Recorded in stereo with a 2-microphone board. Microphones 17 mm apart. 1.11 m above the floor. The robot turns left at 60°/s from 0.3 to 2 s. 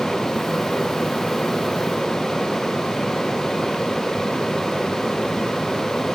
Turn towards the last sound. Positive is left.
No sound to turn to.